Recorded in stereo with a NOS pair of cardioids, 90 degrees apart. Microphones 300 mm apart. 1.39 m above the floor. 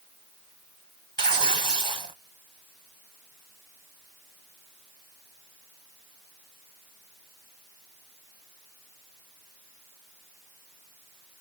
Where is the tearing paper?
15° right, 0.9 m.